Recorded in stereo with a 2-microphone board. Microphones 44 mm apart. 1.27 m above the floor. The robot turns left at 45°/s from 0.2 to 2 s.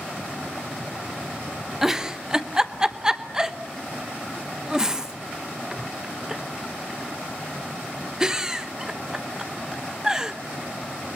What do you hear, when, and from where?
1.8 s a giggle: 10° right (ahead or behind), 1.0 m; by 10.3 s 15° right (ahead or behind), 1.0 m